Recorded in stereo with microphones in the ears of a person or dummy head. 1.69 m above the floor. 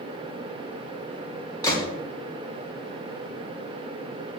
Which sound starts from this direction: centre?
A gunshot, at 1.6 s.